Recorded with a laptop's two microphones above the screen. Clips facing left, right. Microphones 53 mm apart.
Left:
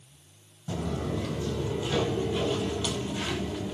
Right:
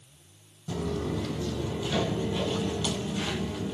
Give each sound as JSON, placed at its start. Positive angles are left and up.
{"t": 0.7, "sound": "footsteps", "side_deg": 15, "distance_m": 1.6}